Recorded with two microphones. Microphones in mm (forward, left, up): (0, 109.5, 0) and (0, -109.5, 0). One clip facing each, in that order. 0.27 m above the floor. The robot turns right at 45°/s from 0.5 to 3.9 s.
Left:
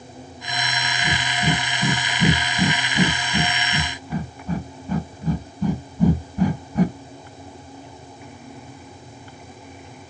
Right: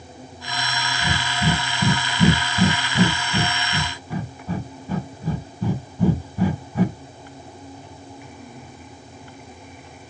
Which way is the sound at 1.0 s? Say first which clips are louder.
Right 1 dB; 25° right (ahead or behind).